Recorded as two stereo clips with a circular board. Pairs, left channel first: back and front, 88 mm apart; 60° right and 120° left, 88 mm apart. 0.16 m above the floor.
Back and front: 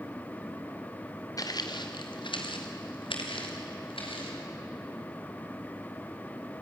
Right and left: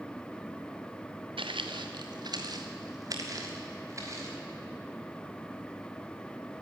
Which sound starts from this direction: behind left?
Footsteps, at 1.4 s.